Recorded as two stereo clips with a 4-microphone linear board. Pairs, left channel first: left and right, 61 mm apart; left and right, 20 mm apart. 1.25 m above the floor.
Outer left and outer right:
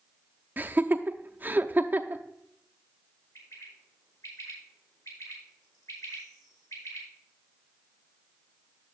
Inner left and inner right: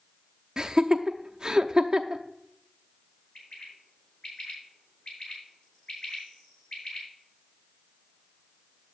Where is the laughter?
30° right (ahead or behind), 0.7 m.